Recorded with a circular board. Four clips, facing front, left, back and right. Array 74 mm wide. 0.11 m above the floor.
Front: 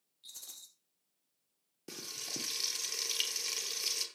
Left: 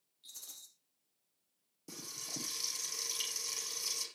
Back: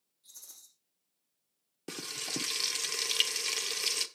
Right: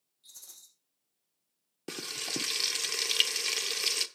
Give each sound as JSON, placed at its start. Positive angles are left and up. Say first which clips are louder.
{"t": 0.2, "sound": "a rattle", "louder": "left 1 dB, front 4 dB", "azimuth_deg": 20, "distance_m": 3.0}
{"t": 1.9, "sound": "frying", "louder": "right 10 dB, back 7 dB", "azimuth_deg": -115, "distance_m": 0.8}